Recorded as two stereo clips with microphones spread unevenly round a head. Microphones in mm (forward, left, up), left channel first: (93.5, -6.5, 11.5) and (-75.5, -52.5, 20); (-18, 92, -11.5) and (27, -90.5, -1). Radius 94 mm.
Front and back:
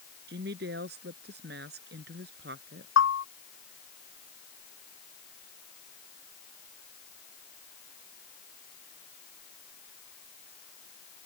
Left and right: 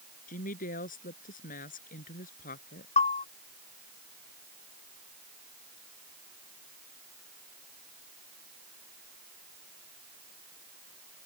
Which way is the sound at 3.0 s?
45° left.